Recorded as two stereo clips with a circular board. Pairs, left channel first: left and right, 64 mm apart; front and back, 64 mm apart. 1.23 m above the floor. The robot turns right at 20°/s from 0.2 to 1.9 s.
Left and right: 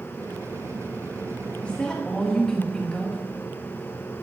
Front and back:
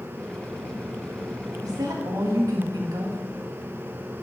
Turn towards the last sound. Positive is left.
turn(degrees=170)